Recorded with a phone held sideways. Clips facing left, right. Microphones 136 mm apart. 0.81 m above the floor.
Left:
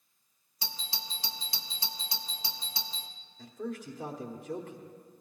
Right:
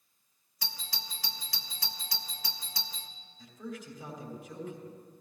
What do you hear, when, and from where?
0.6 s a doorbell: 25° left (ahead or behind), 0.9 m
3.4 s a man speaking: 65° left (ahead or behind), 2 m